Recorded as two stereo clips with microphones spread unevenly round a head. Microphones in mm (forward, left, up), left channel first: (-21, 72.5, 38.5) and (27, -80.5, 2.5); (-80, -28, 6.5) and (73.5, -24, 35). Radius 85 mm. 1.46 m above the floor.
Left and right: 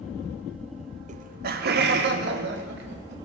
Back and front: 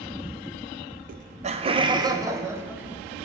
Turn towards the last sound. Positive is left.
turn(degrees=-80)